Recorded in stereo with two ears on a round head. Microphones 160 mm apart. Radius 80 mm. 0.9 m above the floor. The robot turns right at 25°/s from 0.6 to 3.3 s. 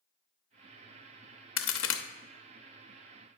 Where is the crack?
75° left (ahead or behind), 0.6 m; by 2.0 s 80° left, 0.6 m.